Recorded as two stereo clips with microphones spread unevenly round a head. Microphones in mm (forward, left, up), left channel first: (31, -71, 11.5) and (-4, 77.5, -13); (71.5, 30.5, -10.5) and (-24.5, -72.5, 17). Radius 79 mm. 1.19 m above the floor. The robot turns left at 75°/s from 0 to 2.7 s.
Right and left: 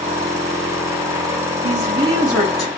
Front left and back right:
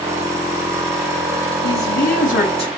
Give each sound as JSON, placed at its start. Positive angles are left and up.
{"t": 1.6, "sound": "a woman speaking", "azimuth_deg": 70, "distance_m": 2.5}